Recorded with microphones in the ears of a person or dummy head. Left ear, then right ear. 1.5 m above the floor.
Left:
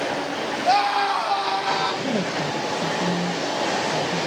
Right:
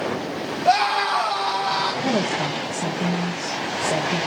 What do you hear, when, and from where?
0.7 s a scream: centre (ahead or behind), 3 m; by 1.9 s 15° left (ahead or behind), 5 m
2.0 s a woman speaking: 45° right (ahead or behind), 2.5 m